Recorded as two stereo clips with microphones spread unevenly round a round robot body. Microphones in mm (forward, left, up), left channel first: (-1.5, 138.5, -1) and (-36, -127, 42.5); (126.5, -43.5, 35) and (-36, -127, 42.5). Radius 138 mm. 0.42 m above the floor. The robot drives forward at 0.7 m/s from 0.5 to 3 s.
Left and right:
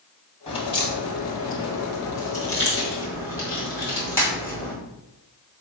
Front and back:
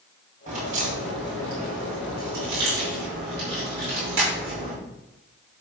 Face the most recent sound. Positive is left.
turn(degrees=160)